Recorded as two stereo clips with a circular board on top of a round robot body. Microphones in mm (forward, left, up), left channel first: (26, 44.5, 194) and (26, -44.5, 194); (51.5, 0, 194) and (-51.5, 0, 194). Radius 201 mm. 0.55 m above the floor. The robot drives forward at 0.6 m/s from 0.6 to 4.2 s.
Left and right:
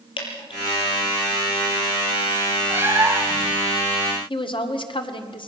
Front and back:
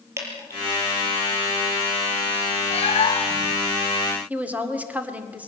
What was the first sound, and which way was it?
Dripping, 115° left.